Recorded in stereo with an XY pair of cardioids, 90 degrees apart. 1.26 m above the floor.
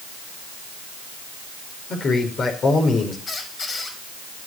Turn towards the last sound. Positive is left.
turn(degrees=50)